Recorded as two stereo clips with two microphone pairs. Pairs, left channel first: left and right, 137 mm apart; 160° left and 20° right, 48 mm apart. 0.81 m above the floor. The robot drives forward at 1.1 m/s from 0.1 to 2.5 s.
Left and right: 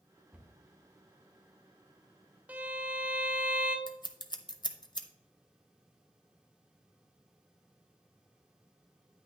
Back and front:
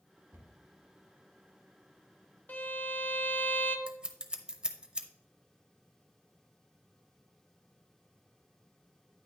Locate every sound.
0.3 s a cupboard door: 10° right, 1.4 m; by 0.5 s 15° right, 1.2 m
2.5 s a violin: 165° right, 0.8 m
3.9 s scissors: 45° left, 0.7 m